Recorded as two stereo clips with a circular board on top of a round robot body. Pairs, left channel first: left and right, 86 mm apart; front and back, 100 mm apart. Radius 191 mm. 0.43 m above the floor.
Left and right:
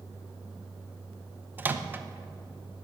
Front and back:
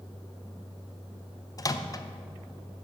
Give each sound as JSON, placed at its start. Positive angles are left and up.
{"t": 1.6, "sound": "a microwave", "azimuth_deg": -30, "distance_m": 0.7}